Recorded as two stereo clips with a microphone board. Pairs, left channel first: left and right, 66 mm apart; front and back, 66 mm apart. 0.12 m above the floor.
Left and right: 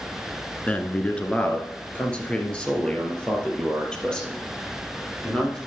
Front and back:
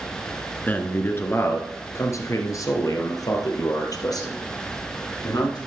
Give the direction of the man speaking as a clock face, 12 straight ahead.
11 o'clock.